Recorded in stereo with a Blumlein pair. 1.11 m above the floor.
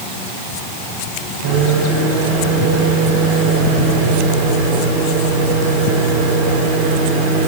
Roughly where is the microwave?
Ahead right.